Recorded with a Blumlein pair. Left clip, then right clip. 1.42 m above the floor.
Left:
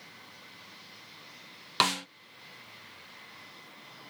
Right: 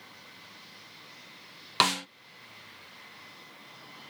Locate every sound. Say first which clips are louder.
1.8 s a snare drum: right 2 dB; 5° right